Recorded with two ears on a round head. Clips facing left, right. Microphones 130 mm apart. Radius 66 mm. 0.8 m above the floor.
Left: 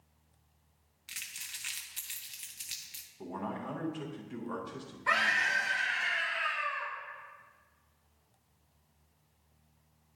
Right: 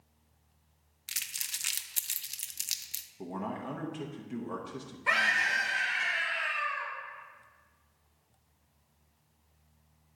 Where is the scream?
25° right (ahead or behind), 2 m.